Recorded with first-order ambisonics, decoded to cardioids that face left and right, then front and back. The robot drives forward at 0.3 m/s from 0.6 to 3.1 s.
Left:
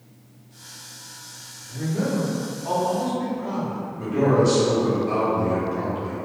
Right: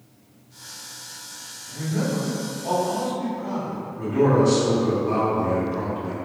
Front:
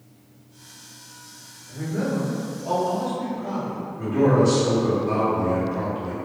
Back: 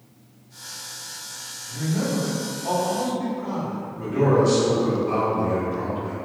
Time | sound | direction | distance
1.7 | a man speaking | 125° right | 1.1 m
4.0 | a man speaking | 75° left | 0.9 m